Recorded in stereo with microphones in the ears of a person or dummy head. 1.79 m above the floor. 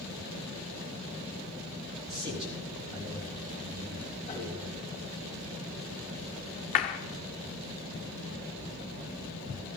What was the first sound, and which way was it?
A man speaking, 30° right (ahead or behind).